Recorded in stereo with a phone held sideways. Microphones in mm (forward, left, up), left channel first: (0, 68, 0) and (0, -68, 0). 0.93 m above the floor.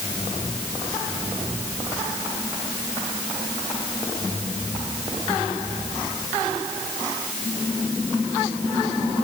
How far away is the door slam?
No door slam in this recording.